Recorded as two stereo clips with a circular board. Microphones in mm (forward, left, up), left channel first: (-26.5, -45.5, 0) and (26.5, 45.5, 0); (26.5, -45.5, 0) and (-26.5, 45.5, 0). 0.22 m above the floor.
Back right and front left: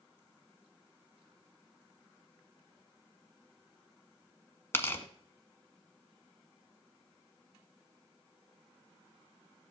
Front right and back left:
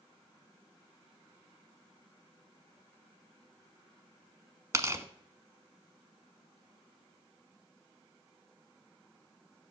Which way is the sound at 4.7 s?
175° left.